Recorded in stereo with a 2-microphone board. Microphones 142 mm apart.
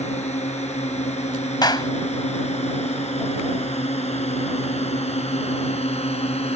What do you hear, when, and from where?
0.0 s a drone: 50° left (ahead or behind); by 6.6 s 45° left (ahead or behind)
1.6 s a clap: 30° left (ahead or behind)